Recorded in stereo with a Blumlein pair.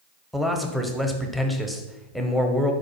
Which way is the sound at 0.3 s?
Straight ahead.